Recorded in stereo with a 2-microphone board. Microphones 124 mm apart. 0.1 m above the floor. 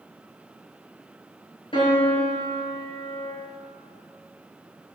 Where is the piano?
45° left (ahead or behind), 2.5 m.